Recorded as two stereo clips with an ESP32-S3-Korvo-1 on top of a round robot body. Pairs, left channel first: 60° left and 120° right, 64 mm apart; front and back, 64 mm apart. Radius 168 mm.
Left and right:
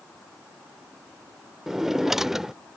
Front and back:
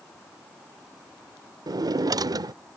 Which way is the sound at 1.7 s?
155° left.